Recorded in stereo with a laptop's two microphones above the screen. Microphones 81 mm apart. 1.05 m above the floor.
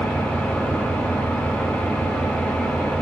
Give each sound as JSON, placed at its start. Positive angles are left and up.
{"t": 0.0, "sound": "an engine running", "side_deg": 20, "distance_m": 3.5}